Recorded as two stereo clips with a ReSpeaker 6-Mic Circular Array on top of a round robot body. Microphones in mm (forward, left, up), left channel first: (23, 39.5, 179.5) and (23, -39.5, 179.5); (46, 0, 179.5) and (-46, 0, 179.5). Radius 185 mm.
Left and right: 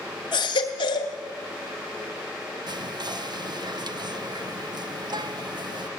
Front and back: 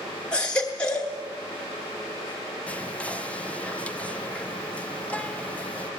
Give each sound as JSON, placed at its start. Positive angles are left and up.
{"t": 0.3, "sound": "a baby crying", "azimuth_deg": 75, "distance_m": 1.0}
{"t": 2.7, "sound": "whispering", "azimuth_deg": -75, "distance_m": 1.2}